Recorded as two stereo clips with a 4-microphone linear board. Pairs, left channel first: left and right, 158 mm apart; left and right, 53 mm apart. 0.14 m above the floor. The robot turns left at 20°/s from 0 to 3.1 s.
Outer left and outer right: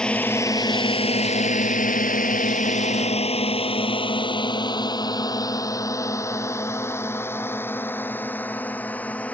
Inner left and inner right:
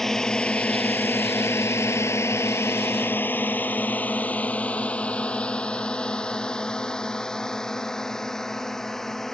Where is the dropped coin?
No dropped coin in this recording.